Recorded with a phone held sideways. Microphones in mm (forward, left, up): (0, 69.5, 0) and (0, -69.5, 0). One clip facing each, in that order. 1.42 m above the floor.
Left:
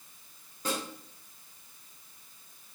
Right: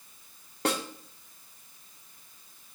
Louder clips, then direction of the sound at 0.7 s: Right 5 dB; 70° right (ahead or behind).